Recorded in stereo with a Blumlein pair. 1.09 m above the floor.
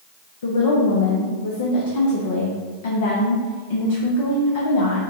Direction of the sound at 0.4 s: 55° left.